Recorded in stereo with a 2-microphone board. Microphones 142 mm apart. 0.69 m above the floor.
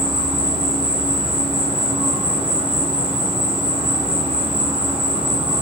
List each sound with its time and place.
0.0 s an insect: 45° right (ahead or behind), 1.0 m